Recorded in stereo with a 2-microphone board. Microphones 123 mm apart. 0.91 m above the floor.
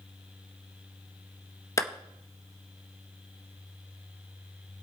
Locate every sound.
1.8 s a clap: 25° left (ahead or behind), 0.8 m